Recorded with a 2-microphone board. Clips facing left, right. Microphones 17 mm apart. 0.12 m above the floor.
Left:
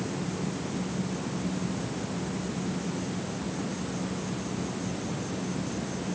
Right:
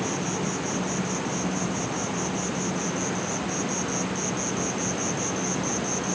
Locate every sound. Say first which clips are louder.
0.0 s an insect: right 5 dB; 65° right (ahead or behind)